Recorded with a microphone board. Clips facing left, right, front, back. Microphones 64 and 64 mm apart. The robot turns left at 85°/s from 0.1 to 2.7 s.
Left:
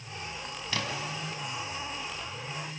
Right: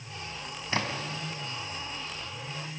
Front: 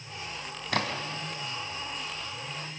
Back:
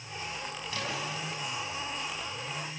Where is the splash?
25° right, 3 m; by 1.2 s 70° right, 3 m.